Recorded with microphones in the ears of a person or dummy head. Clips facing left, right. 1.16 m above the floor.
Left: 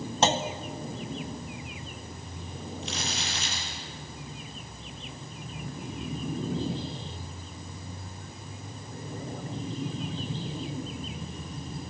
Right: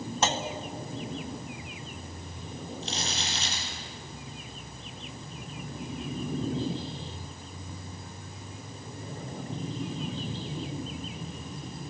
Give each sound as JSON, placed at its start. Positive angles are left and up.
{"t": 0.2, "sound": "a clunk", "side_deg": 25, "distance_m": 1.3}
{"t": 2.8, "sound": "crumpling", "side_deg": -30, "distance_m": 9.0}